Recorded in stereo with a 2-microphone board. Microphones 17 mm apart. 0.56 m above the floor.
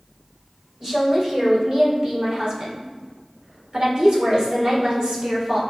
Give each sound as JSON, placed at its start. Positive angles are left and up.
{"t": 0.8, "sound": "a woman speaking", "side_deg": -30, "distance_m": 3.0}